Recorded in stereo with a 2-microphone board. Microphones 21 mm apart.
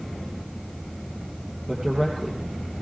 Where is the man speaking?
35° right (ahead or behind), 3 m.